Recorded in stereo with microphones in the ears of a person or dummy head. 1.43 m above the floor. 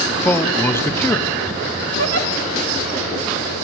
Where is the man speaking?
10° left (ahead or behind), 0.6 m.